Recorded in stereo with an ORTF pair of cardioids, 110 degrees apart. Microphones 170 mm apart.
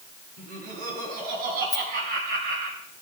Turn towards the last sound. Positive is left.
turn(degrees=25)